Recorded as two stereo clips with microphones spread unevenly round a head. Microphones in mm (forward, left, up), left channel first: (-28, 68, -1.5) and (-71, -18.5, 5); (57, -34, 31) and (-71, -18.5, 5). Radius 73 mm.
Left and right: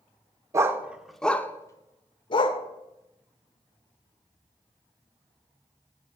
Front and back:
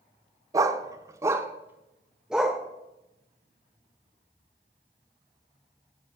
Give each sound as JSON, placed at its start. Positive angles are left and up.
{"t": 0.5, "sound": "a dog barking", "azimuth_deg": -120, "distance_m": 0.9}